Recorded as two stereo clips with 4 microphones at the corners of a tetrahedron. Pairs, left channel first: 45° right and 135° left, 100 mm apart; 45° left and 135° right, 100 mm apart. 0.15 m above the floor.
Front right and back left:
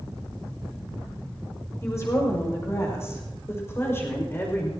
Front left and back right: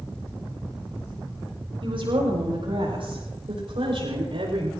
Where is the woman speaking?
105° right, 7.5 m; by 4.7 s 110° right, 5.5 m.